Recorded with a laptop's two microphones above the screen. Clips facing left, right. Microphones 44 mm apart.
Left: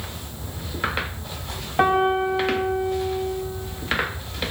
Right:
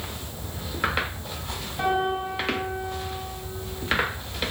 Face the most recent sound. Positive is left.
turn(degrees=55)  # may be behind; listen again after turning